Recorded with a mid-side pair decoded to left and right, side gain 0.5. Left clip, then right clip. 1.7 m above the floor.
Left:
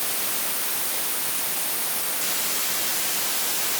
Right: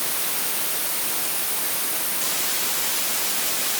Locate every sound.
Only background noise.